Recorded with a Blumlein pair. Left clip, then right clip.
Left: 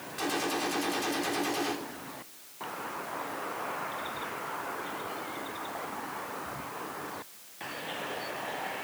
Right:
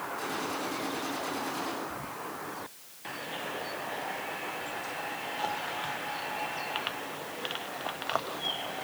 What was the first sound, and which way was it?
A gunshot, 65° left.